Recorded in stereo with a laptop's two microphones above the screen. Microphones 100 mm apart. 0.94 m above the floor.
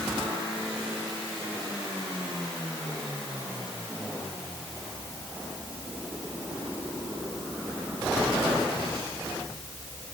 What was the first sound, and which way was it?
Only background noise.